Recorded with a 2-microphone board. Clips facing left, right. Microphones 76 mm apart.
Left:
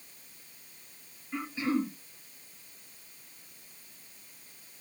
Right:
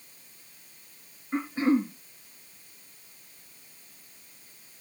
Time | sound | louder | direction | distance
1.3 | throat clearing | right 6 dB | 45° right (ahead or behind) | 3.5 m